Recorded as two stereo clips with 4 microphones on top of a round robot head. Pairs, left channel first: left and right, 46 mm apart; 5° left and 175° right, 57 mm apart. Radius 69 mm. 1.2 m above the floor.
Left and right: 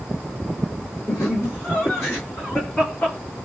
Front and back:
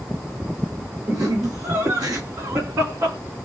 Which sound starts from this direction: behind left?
Laughter, at 1.1 s.